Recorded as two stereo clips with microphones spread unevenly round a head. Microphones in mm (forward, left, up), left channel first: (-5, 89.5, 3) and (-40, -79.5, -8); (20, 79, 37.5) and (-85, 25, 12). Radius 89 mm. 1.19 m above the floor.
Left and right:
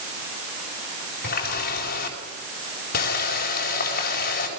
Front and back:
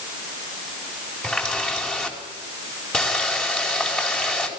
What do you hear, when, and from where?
1.2 s a running tap: 105° left, 4 m